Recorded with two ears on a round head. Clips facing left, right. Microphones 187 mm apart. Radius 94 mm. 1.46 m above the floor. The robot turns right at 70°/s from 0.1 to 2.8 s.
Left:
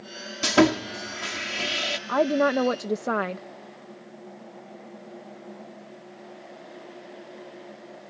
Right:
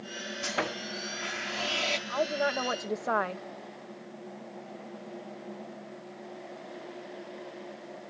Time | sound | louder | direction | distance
0.4 | sawing | left 16 dB | 65° left | ?
2.1 | a woman speaking | left 9 dB | 95° left | ?